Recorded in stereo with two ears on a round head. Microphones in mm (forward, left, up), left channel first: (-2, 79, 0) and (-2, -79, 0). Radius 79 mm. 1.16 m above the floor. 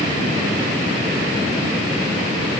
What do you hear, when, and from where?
Only background noise.